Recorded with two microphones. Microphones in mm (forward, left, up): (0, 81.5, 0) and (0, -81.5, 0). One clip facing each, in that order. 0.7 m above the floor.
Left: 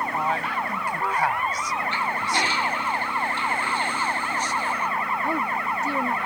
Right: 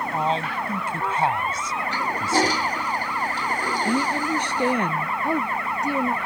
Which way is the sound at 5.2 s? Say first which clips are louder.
Right 4 dB; 15° right (ahead or behind).